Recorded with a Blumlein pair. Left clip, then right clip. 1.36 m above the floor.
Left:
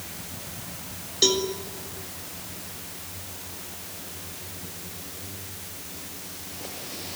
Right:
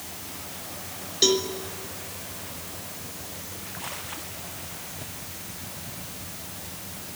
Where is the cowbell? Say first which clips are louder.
Even; straight ahead, 2.0 m.